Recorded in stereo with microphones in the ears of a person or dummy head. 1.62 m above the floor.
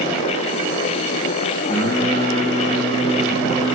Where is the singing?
70° right (ahead or behind), 7 m.